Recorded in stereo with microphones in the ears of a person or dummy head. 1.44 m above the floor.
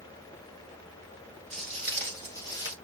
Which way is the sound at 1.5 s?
Centre (ahead or behind).